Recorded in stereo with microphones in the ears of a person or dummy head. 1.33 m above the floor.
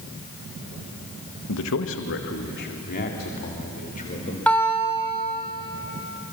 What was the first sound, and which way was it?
A man speaking, 80° left.